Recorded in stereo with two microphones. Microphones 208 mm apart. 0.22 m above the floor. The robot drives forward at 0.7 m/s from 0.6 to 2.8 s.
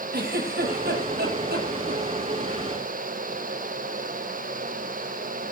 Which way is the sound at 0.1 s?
50° right (ahead or behind).